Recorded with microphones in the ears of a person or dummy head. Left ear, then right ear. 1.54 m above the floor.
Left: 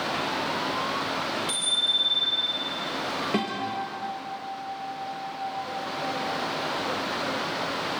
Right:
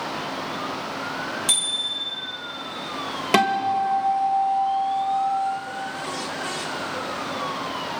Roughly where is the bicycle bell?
Right.